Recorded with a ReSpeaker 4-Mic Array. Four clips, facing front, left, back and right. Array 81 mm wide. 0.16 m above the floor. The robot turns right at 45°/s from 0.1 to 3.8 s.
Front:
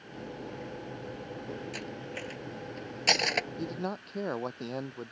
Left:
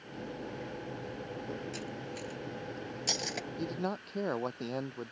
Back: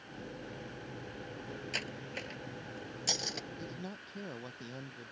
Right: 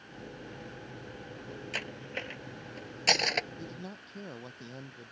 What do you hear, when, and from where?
1.7 s cutlery clinking: 105° right; by 3.5 s 30° right
3.6 s a man speaking: 35° left; by 5.1 s 45° left